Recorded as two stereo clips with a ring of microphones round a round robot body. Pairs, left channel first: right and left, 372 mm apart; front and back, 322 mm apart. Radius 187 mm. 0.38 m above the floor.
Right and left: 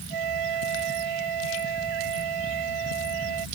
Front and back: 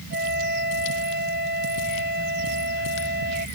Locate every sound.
0.1 s a flute: 120° left